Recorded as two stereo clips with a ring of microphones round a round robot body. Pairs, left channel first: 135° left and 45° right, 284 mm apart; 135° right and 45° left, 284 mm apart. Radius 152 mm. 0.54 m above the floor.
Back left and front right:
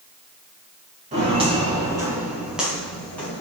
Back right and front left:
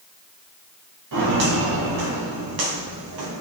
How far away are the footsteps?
About 5 m.